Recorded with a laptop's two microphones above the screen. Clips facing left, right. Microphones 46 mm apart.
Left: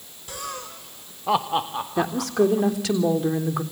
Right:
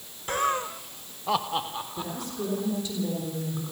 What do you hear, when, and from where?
0.3 s laughter: 45° right (ahead or behind), 0.8 m; by 2.7 s 30° left (ahead or behind), 3.5 m
2.0 s a woman speaking: 75° left (ahead or behind), 3.5 m